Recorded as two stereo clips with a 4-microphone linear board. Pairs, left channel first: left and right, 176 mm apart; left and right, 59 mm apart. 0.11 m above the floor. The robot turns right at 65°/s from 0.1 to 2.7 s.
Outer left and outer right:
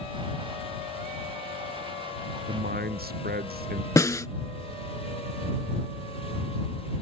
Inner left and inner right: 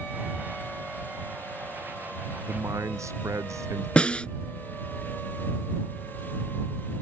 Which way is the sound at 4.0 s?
20° left (ahead or behind).